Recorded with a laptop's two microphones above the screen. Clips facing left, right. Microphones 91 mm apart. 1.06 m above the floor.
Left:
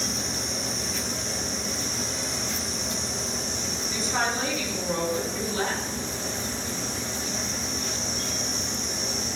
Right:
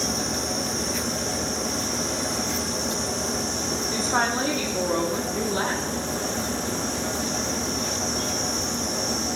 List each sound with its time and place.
0.0 s a fan: 60° right (ahead or behind), 1.6 m
3.9 s a woman speaking: 40° right (ahead or behind), 3 m